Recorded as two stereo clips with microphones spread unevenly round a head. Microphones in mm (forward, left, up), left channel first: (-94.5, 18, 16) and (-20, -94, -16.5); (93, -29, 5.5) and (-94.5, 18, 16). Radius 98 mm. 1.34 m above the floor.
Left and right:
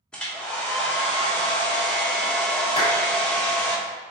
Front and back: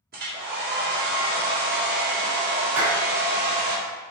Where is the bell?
I don't hear a bell.